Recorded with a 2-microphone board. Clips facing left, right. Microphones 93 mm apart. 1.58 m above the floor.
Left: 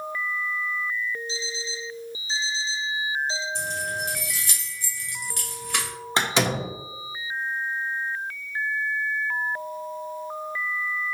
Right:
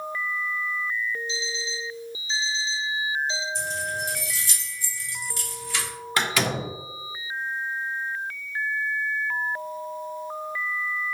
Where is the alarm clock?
40° left (ahead or behind), 1.4 m.